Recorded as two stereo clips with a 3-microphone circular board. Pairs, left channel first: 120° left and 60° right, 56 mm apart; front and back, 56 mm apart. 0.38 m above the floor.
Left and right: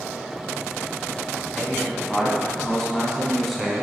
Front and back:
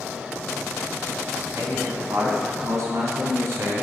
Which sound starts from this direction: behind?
A man speaking, at 1.6 s.